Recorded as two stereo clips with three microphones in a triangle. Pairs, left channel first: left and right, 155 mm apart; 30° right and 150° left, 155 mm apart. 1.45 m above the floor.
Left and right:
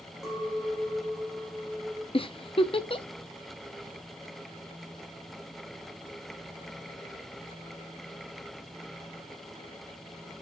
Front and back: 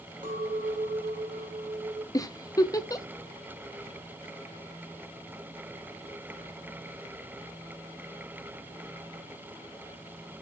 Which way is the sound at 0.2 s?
Straight behind.